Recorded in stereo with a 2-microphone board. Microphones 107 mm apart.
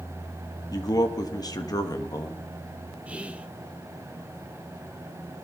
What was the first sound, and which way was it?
A man speaking, 35° left (ahead or behind).